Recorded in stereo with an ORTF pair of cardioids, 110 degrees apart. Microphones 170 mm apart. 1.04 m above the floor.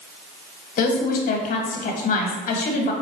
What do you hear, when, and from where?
0.8 s a woman speaking: 55° left, 1.2 m